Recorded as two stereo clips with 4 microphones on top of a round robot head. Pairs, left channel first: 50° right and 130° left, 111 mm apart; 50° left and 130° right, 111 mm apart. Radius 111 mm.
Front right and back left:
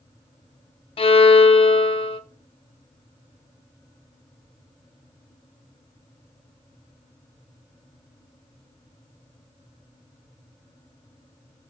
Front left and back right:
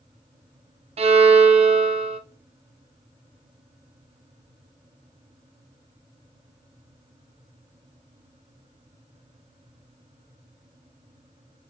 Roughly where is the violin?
Right.